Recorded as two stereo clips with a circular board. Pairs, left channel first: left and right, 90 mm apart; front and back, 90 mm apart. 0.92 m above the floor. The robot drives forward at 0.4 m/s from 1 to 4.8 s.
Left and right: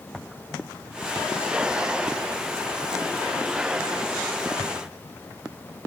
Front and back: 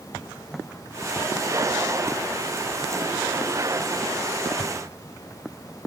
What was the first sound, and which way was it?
Only background noise.